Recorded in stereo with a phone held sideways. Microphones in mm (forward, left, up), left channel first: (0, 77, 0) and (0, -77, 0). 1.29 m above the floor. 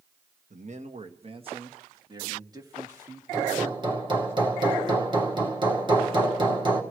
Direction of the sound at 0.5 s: 55° right (ahead or behind).